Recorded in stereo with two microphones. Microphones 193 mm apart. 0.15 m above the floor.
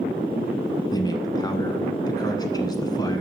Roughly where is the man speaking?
Left.